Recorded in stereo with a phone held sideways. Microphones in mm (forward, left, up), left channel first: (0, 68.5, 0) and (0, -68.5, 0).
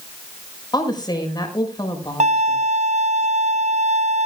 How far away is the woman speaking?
About 6 m.